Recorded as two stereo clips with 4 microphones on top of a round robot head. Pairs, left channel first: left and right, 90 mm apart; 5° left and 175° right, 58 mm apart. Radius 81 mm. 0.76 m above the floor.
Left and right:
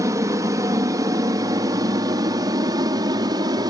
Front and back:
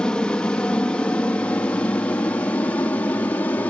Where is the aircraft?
65° right; by 3.7 s 55° right.